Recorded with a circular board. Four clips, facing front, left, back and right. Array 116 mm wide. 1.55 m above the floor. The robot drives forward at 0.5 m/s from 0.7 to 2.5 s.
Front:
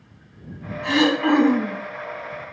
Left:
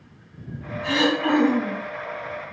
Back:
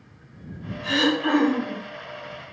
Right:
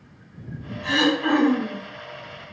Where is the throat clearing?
5° left, 1.7 m.